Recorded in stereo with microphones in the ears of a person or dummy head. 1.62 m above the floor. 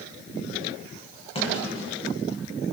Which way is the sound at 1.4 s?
35° left (ahead or behind).